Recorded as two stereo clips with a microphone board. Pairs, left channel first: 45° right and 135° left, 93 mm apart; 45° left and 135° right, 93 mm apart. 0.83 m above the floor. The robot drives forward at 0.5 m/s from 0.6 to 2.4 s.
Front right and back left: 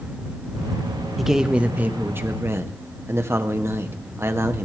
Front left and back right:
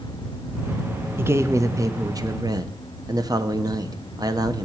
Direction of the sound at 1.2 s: 135° right.